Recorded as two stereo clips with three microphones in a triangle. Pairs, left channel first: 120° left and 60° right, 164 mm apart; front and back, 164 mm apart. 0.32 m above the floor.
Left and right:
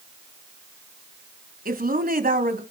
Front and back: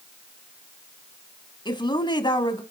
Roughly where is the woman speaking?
Ahead right.